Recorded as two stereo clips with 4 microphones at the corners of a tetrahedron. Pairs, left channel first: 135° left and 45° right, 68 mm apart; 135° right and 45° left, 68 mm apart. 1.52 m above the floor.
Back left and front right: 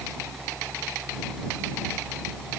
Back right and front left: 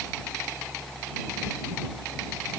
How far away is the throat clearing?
No throat clearing in this recording.